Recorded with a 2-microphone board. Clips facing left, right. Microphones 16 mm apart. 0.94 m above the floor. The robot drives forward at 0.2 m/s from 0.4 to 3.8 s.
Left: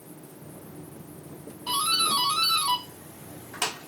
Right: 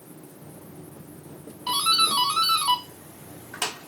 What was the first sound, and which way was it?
A doorbell, 25° right (ahead or behind).